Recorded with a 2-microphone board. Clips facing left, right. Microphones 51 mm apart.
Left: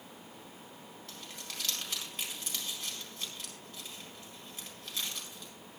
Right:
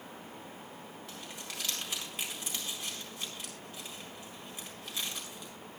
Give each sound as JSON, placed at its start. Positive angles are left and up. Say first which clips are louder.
{"t": 1.1, "sound": "crumpling", "louder": "right 1 dB", "side_deg": -10, "distance_m": 4.0}